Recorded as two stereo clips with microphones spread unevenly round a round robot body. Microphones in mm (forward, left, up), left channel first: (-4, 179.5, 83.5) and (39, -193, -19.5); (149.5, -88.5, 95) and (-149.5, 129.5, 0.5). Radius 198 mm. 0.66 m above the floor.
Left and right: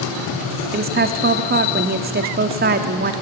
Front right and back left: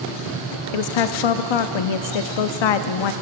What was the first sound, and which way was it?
A woman speaking, 35° right.